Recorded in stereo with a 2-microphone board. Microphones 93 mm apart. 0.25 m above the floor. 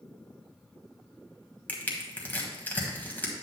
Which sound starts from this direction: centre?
Crushing, at 1.7 s.